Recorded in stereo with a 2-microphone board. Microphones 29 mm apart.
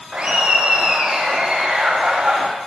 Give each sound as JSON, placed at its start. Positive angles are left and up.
{"t": 0.1, "sound": "laughter", "side_deg": -50, "distance_m": 9.5}